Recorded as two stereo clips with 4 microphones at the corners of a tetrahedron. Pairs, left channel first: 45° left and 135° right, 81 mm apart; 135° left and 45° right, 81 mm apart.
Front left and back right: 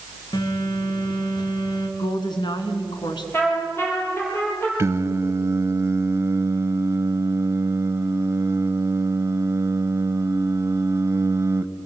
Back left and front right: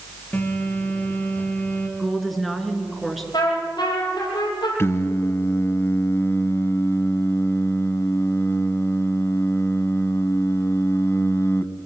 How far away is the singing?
About 0.9 m.